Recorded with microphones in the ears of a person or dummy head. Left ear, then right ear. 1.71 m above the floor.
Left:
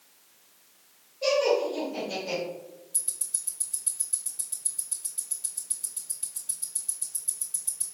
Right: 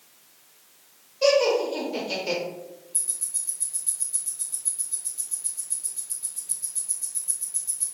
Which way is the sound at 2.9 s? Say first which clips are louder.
Right 2 dB; 30° left (ahead or behind).